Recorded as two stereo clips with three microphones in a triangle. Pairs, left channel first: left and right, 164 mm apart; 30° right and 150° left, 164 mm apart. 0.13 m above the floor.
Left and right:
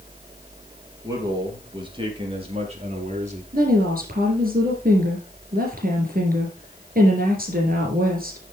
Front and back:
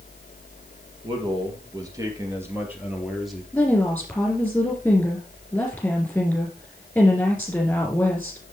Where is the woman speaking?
115° right, 4 m.